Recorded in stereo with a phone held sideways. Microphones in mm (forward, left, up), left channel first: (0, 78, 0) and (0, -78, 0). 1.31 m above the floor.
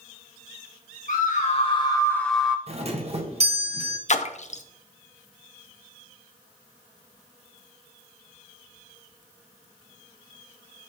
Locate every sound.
1.1 s a scream: 55° left (ahead or behind), 1.4 m; by 2.6 s 10° right (ahead or behind), 1.1 m
2.7 s a doorbell: 40° right (ahead or behind), 0.8 m
4.1 s a splash: 50° left (ahead or behind), 0.6 m